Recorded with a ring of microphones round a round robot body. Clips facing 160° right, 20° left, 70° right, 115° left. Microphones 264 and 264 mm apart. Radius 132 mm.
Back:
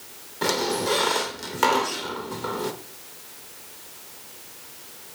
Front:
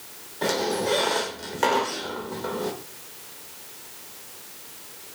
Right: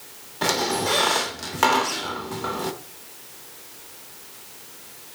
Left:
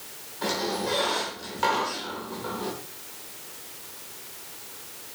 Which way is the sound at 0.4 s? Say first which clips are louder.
Even, right 4 dB; 85° right.